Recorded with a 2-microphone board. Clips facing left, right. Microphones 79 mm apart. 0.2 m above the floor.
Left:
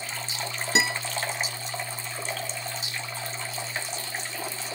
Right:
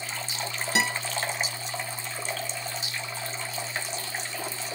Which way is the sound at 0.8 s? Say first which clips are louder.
Left 1 dB; 25° left (ahead or behind).